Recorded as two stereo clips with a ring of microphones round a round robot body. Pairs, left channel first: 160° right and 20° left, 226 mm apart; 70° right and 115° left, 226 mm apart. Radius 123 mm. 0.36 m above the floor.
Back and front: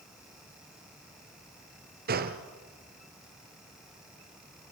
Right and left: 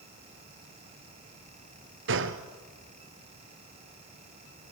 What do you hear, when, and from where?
2.1 s a gunshot: 75° left, 1.3 m